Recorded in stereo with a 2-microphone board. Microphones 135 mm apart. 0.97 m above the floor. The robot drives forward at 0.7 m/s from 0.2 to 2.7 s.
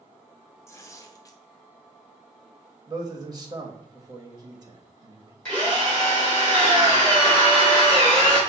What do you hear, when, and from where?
0.7 s tearing paper: 20° left (ahead or behind), 0.7 m; by 1.4 s 25° left (ahead or behind), 0.6 m
2.9 s a man speaking: 30° right (ahead or behind), 1.0 m
5.5 s a drill: 10° left (ahead or behind), 2.5 m